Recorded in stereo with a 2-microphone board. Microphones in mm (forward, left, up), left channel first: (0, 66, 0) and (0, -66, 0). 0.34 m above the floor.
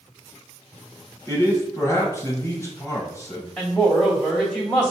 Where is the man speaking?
25° left (ahead or behind), 2 m.